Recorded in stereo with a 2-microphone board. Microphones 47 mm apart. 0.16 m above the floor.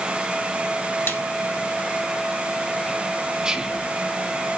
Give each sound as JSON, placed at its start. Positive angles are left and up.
{"t": 1.1, "sound": "a snare drum", "side_deg": 65, "distance_m": 1.6}
{"t": 3.4, "sound": "whispering", "side_deg": -20, "distance_m": 1.2}